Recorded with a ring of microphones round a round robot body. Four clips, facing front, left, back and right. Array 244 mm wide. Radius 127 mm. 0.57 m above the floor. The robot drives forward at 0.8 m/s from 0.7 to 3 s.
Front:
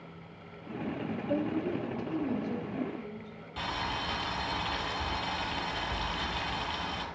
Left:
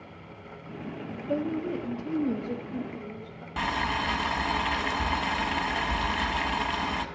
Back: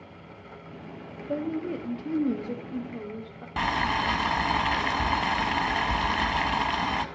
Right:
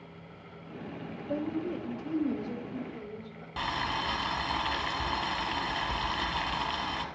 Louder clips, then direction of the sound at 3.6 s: Left 4 dB, back 9 dB; 160° left.